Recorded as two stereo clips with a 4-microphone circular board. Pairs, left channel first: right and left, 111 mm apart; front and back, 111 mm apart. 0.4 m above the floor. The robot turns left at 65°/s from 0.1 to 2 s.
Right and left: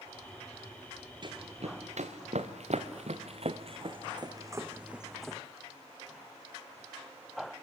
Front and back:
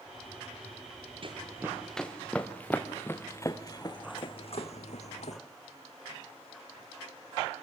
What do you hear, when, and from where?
1.2 s running footsteps: 140° left, 3.5 m; by 5.4 s 10° right, 1.4 m